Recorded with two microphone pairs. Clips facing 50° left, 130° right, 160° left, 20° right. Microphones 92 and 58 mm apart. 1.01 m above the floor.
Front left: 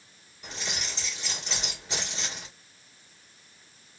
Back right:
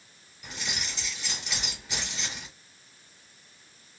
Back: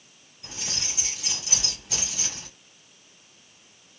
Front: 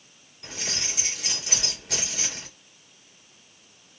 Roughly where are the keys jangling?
Ahead.